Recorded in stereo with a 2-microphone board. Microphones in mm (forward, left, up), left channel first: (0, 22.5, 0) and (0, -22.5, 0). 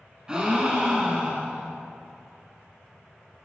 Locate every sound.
0.3 s a gasp: 20° right (ahead or behind), 0.9 m